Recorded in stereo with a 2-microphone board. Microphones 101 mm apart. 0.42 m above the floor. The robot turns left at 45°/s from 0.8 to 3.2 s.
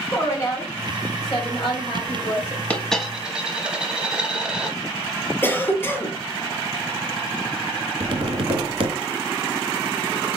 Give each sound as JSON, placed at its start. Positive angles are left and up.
{"t": 0.1, "sound": "a woman speaking", "azimuth_deg": 140, "distance_m": 2.0}
{"t": 2.7, "sound": "a dropped coin", "side_deg": 15, "distance_m": 0.8}
{"t": 5.4, "sound": "a cough", "side_deg": 20, "distance_m": 0.8}
{"t": 8.0, "sound": "tapping", "side_deg": -65, "distance_m": 0.9}